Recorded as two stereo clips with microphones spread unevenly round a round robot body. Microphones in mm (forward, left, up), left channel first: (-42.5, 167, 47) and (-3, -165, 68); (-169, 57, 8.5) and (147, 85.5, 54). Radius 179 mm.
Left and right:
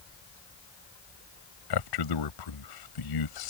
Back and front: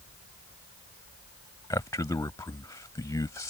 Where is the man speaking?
105° left.